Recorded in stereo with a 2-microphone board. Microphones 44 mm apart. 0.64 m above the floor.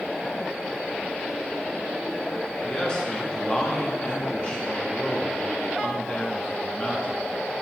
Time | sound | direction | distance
2.6 | a man speaking | 20° left (ahead or behind) | 1.1 m